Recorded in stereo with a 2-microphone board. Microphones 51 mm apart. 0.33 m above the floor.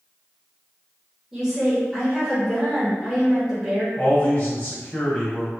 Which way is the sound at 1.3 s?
10° right (ahead or behind).